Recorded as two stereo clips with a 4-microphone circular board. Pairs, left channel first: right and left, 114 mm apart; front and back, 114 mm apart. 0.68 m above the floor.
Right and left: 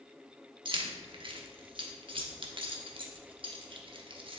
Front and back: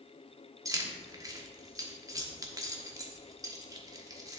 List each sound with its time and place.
0.7 s keys jangling: 125° left, 1.0 m